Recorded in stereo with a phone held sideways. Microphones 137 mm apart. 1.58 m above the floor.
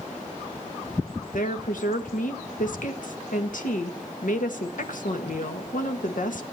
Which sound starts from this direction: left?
A woman speaking, at 1.3 s.